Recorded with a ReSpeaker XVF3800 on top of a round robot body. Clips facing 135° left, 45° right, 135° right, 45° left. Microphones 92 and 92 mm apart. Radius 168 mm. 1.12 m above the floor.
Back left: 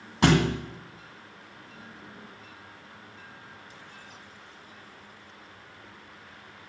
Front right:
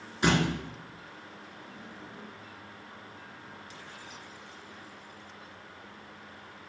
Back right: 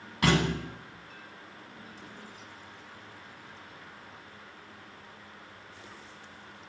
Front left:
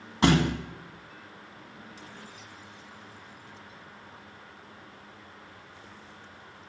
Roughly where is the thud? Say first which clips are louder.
Back left 4 dB, front left 3 dB; left.